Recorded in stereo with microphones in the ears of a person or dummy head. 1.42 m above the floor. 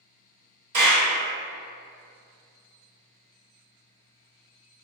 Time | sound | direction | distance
0.7 | a clap | 55° right (ahead or behind) | 1.2 m